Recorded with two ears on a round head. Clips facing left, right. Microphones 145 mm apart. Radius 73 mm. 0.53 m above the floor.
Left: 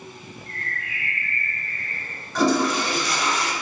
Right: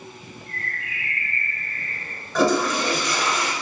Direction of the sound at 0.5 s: 5° right (ahead or behind).